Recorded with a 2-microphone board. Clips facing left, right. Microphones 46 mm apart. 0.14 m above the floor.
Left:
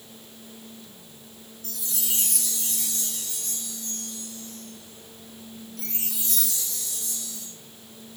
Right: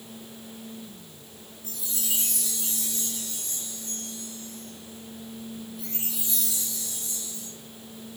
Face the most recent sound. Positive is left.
turn(degrees=80)